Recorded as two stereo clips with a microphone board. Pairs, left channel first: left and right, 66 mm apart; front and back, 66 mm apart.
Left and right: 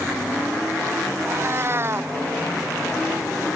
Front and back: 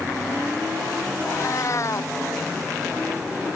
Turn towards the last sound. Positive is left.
turn(degrees=-40)